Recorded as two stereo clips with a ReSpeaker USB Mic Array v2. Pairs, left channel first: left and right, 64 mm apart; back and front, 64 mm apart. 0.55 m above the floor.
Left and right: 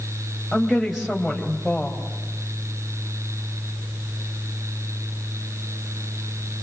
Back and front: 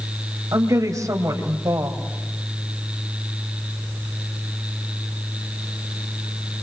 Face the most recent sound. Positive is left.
turn(degrees=0)